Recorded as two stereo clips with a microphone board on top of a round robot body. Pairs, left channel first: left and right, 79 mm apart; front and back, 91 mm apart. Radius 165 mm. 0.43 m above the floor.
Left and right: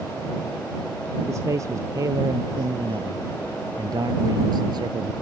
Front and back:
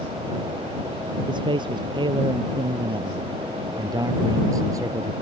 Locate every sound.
1.3 s a man speaking: 145° right; by 5.1 s 125° right